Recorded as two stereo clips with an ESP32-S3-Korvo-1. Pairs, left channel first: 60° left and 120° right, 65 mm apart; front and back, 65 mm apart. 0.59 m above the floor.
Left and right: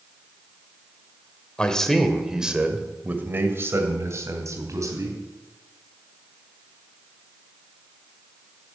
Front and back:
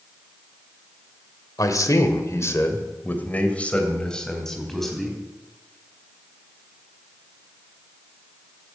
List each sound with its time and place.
1.6 s a man speaking: 15° right, 2 m; by 5.2 s 90° right, 4 m